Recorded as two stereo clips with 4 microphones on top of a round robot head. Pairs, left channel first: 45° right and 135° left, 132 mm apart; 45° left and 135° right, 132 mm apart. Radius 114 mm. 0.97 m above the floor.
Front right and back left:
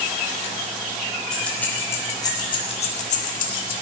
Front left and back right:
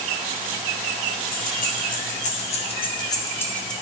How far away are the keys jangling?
About 3 m.